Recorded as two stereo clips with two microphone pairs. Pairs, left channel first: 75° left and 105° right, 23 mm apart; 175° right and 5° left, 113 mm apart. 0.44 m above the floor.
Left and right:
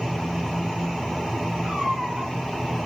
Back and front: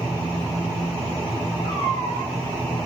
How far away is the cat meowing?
About 3 m.